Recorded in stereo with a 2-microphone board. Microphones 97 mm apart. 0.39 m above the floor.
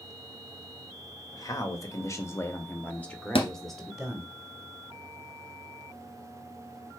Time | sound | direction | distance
1.3 | a man speaking | 40° left (ahead or behind) | 1.5 m
3.4 | a thud | 70° left (ahead or behind) | 1.5 m